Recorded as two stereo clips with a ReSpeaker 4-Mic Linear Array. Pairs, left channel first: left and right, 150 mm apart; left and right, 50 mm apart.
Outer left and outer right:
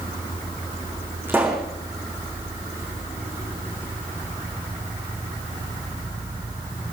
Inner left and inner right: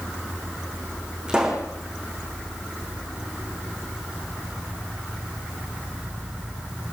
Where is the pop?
15° right (ahead or behind), 5.5 m.